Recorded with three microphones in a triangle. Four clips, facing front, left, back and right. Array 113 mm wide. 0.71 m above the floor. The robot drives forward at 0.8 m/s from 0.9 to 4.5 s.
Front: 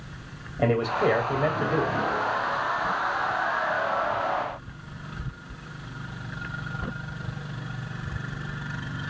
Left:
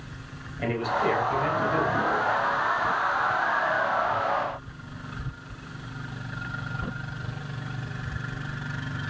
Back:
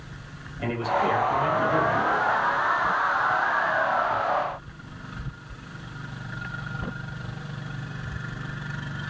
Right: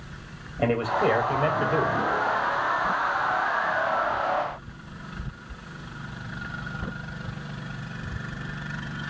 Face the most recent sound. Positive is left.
turn(degrees=-95)